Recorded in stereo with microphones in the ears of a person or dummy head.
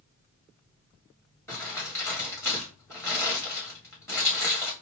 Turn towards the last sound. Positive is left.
turn(degrees=10)  # may be behind; listen again after turning